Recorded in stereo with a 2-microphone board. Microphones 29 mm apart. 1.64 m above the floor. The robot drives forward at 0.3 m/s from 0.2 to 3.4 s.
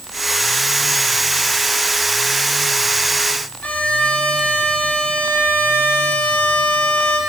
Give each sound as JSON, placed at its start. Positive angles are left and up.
{"t": 3.6, "sound": "a violin", "side_deg": 65, "distance_m": 1.9}